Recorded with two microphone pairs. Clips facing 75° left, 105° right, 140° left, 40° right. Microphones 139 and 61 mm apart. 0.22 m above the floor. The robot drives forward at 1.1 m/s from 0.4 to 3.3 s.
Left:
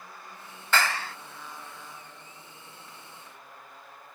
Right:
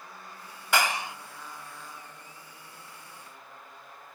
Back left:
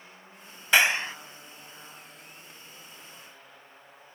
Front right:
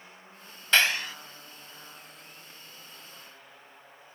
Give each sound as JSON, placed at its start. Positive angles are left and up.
{"t": 0.7, "sound": "a clap", "azimuth_deg": -165}